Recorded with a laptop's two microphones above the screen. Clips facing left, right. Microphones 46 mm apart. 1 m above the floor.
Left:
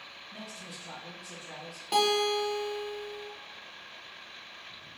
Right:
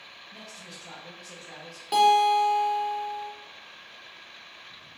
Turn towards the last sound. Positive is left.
turn(degrees=0)  # may be behind; listen again after turning